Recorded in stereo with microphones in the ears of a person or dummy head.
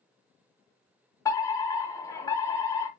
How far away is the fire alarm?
About 1.0 m.